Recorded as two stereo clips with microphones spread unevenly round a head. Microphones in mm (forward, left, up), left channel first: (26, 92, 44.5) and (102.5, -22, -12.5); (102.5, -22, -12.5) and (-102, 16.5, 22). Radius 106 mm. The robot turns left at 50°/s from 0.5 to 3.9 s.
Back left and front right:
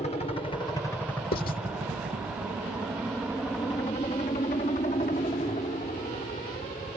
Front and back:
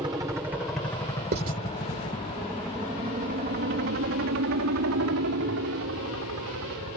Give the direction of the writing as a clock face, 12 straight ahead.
8 o'clock.